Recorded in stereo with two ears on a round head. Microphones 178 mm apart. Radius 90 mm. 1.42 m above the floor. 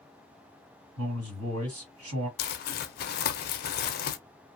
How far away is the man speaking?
About 1.8 m.